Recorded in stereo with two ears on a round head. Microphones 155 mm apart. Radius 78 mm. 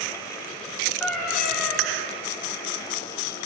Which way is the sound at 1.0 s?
Centre (ahead or behind).